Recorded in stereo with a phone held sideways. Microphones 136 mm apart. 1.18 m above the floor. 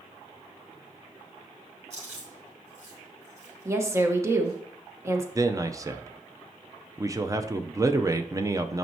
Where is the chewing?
55° right (ahead or behind), 4.5 m.